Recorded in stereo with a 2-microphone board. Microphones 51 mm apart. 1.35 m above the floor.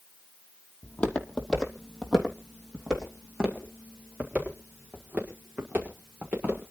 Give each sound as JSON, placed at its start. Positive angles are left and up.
{"t": 0.8, "sound": "footsteps", "side_deg": 25, "distance_m": 2.5}